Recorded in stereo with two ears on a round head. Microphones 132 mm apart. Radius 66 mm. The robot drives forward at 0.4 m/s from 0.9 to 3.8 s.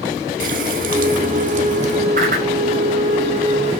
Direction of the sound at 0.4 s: 60° right (ahead or behind).